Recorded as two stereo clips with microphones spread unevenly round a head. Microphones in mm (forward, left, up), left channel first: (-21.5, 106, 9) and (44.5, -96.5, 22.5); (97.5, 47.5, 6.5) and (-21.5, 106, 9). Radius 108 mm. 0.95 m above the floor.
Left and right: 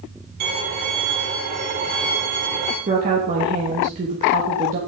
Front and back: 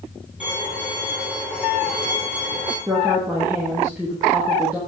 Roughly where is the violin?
Behind right.